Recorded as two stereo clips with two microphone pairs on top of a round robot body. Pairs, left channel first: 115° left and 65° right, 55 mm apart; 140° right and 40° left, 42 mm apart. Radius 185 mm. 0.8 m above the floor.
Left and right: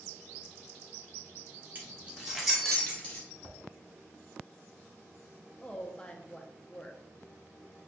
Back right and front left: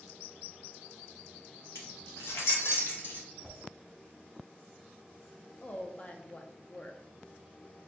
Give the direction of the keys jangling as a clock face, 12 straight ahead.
4 o'clock.